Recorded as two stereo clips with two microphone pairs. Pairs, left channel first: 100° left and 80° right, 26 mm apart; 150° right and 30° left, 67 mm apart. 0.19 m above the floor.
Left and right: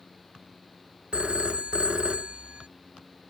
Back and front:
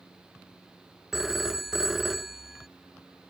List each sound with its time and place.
1.1 s a phone ringing: 55° right